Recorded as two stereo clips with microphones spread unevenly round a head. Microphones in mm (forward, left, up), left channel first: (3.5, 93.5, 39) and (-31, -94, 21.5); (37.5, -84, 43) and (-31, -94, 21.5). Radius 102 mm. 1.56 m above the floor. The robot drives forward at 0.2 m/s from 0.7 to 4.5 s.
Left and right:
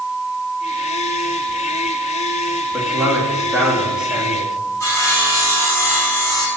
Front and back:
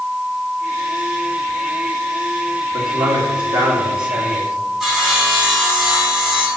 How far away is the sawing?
About 5 m.